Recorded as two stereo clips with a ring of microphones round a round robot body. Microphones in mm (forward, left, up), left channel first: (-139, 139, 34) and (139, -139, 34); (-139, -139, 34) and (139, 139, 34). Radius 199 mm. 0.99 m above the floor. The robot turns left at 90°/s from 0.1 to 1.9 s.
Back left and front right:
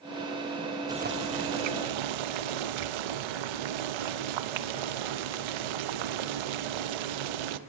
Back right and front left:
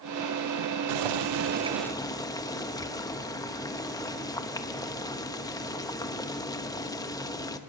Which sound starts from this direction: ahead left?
Boiling, at 0.9 s.